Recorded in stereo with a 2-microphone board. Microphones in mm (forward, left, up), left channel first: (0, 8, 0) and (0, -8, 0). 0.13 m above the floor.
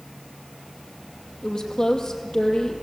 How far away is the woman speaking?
About 4.5 m.